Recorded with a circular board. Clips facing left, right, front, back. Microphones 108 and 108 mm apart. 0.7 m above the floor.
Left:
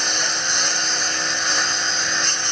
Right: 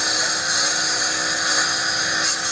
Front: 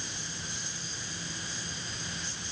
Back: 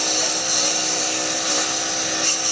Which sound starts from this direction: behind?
A lawn mower, at 0.0 s.